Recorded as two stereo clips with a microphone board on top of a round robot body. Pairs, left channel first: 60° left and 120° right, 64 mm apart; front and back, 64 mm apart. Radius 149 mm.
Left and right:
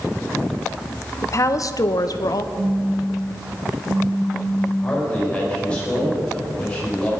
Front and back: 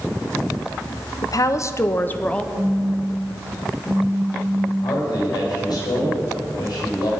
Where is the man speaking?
15° right, 6 m.